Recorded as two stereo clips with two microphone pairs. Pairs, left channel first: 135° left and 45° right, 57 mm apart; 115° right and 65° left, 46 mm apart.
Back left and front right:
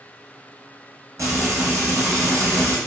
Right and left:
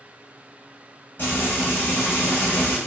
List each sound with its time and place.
1.2 s frying: 70° right, 1.2 m